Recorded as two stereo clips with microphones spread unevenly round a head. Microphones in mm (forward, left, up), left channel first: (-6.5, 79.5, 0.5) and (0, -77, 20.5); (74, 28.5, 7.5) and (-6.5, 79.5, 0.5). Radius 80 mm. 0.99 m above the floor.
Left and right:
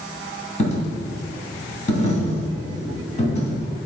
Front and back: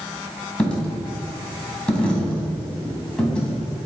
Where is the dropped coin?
45° left, 3 m.